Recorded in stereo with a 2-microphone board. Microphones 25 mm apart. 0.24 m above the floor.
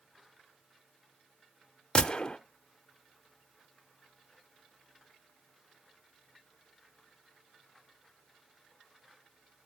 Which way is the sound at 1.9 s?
35° left (ahead or behind).